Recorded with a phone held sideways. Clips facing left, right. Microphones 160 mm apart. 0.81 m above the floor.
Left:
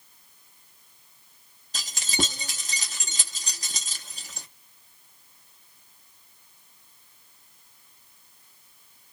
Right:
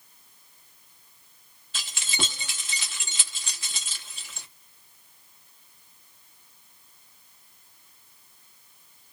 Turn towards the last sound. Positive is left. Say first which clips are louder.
# left 5 dB
turn(degrees=45)  # may be behind; listen again after turning